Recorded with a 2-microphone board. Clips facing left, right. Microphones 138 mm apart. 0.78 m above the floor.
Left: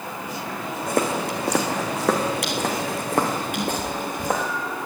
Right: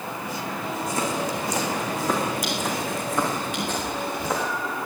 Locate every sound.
0.9 s footsteps: 60° left (ahead or behind), 2.5 m; by 4.4 s 45° left (ahead or behind), 5 m
3.5 s a cat meowing: 90° left, 6.5 m